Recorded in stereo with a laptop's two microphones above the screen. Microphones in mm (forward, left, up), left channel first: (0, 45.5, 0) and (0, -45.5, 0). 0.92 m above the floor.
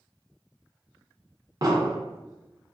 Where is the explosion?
40° right (ahead or behind), 0.8 m.